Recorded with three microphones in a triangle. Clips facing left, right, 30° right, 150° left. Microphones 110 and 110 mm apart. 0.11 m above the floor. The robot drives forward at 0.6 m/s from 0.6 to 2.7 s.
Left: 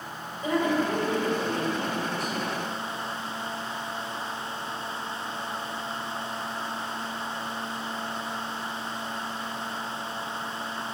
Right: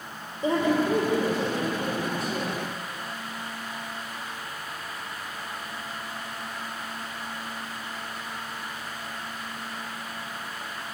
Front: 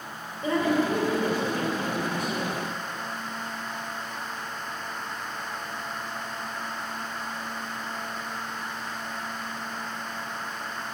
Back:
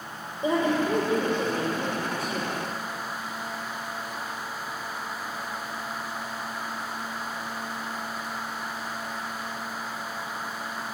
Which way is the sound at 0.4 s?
140° right.